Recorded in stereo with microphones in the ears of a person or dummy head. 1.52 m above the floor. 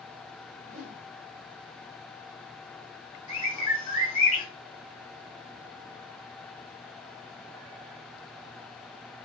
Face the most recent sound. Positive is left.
turn(degrees=45)  # may be behind; listen again after turning